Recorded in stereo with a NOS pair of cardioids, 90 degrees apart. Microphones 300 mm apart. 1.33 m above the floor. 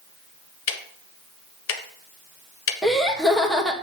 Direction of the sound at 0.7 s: 45° left.